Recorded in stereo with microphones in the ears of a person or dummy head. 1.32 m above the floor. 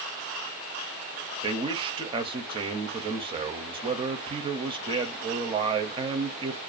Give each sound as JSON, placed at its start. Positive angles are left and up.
{"t": 1.4, "sound": "a man speaking", "side_deg": -25, "distance_m": 0.6}